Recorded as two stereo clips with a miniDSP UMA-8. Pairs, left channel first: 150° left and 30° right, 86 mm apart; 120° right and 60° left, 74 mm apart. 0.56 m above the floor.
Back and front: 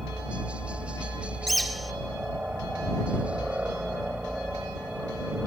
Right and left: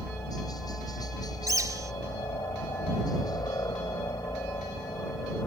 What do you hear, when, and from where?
0.0 s a helicopter: 105° right
1.5 s a bird: 60° left